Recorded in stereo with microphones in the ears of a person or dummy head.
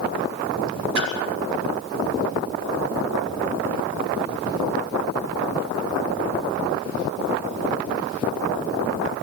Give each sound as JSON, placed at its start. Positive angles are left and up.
{"t": 0.9, "sound": "a splash", "side_deg": -60, "distance_m": 7.0}